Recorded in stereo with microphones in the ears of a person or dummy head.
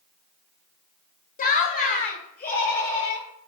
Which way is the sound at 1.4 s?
40° left (ahead or behind).